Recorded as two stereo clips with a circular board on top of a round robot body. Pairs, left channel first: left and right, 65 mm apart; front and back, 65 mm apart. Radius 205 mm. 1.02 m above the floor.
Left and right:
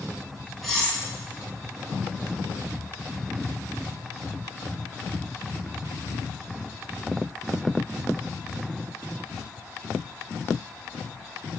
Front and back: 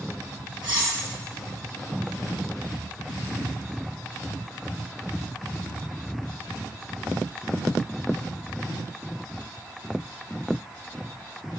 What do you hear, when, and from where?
0.6 s cutlery clinking: 175° right, 1.1 m